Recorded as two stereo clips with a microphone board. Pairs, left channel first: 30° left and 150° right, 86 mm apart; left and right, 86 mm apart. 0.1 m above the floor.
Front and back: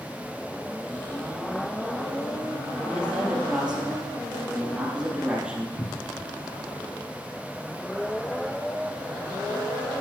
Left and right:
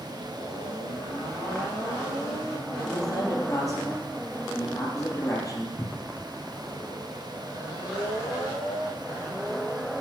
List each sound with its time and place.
2.9 s a man speaking: 135° left, 3 m
5.8 s a cupboard door: 85° left, 0.6 m